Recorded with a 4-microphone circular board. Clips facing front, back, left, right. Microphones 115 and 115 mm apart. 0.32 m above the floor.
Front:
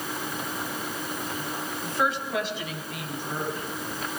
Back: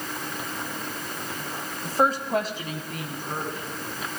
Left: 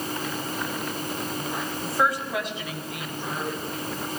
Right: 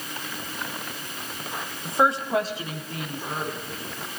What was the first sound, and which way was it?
A woman speaking, 155° right.